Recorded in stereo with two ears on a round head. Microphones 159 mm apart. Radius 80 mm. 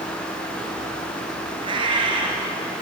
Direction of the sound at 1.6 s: 25° right (ahead or behind).